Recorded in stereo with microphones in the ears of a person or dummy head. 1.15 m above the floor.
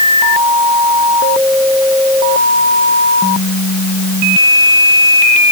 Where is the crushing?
No crushing in this recording.